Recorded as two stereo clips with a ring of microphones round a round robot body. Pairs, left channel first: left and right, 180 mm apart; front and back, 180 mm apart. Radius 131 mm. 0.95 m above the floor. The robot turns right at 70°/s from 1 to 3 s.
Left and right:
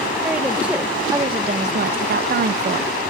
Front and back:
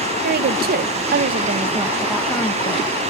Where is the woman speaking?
175° right, 0.5 m; by 2.9 s 40° right, 0.5 m.